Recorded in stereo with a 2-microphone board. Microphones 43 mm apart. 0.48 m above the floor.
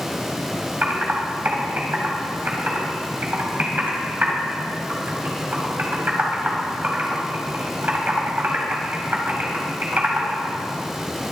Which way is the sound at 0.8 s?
50° right (ahead or behind).